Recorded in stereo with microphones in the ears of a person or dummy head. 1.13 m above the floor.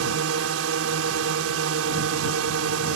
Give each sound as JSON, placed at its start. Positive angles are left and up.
{"t": 0.0, "sound": "a drone", "side_deg": -70}